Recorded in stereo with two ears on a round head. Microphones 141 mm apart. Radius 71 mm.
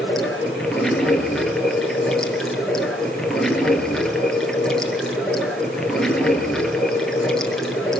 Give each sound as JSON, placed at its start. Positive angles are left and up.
{"t": 0.0, "sound": "running water", "side_deg": 5, "distance_m": 2.5}